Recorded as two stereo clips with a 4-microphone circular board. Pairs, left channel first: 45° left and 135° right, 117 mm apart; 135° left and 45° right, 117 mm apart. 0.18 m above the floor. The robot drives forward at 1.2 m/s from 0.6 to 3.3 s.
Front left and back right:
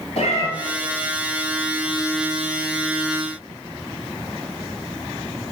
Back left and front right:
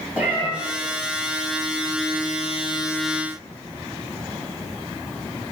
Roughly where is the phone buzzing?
No phone buzzing in this recording.